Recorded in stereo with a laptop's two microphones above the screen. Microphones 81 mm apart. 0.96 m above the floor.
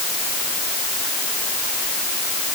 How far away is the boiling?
No boiling in this recording.